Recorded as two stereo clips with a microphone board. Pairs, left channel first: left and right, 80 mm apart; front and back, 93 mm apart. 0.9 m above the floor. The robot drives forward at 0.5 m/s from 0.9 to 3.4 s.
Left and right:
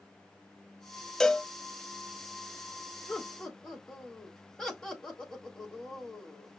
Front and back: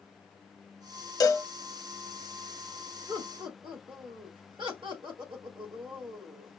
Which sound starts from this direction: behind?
Laughter, at 3.1 s.